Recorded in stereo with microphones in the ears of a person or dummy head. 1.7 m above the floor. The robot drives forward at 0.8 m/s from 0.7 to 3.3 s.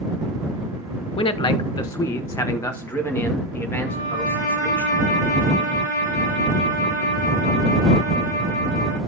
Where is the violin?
65° left (ahead or behind), 4 m.